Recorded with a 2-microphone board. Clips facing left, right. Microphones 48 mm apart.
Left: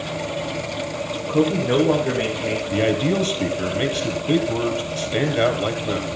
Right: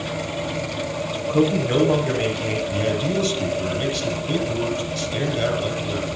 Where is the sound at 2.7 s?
40° left (ahead or behind), 3 m.